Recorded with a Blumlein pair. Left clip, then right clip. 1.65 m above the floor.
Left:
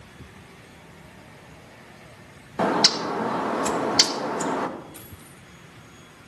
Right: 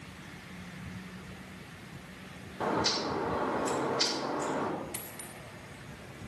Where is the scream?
I don't hear a scream.